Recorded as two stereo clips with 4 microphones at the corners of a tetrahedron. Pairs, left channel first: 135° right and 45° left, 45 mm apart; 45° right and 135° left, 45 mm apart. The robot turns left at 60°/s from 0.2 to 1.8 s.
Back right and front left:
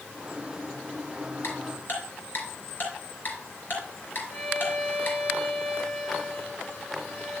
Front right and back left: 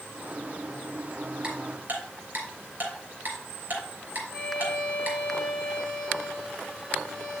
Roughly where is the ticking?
Behind right.